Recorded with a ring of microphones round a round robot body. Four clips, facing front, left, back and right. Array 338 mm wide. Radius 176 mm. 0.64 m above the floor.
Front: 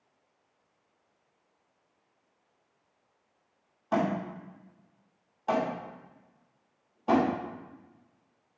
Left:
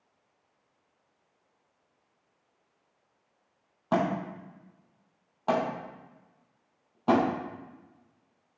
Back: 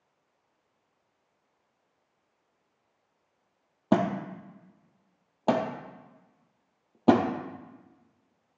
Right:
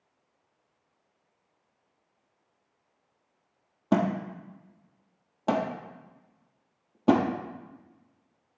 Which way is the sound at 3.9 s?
155° right.